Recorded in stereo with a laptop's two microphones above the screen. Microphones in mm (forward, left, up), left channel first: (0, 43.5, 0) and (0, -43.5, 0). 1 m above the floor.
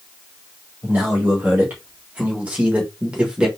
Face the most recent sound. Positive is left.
turn(degrees=-10)  # may be behind; listen again after turning